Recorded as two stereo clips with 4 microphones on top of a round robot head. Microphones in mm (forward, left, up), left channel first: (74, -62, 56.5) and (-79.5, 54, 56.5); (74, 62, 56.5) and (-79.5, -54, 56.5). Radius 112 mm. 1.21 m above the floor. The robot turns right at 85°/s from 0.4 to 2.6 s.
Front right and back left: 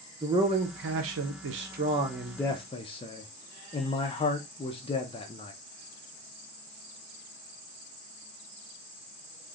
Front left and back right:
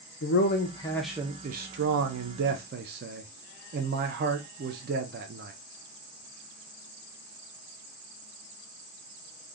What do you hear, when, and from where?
0.2 s a man speaking: 70° left, 0.5 m; by 5.5 s 100° right, 0.5 m